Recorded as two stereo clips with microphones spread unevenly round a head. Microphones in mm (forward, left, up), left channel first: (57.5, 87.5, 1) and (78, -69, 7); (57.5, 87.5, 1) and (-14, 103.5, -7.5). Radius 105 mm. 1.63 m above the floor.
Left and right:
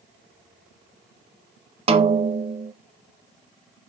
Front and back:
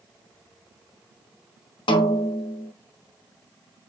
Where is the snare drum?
30° right, 1.2 m.